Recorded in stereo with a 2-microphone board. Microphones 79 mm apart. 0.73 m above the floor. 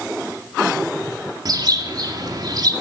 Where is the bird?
55° right (ahead or behind), 1.9 m.